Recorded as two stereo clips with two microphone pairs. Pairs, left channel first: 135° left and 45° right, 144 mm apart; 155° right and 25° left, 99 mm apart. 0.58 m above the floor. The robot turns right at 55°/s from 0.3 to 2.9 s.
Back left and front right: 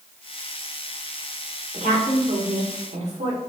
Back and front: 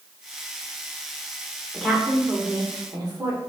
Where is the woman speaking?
75° right, 1.2 m; by 3.4 s 15° right, 1.2 m.